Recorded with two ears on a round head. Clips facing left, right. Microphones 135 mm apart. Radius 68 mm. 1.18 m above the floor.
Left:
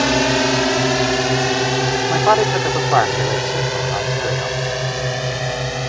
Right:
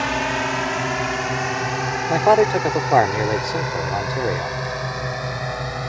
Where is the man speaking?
20° right (ahead or behind).